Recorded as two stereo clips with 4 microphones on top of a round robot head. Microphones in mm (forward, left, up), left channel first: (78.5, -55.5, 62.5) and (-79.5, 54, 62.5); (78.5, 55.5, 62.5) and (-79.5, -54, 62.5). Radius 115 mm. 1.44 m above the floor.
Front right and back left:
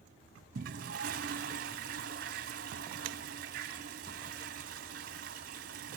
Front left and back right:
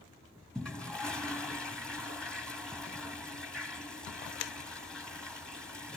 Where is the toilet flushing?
120° left, 1.5 m.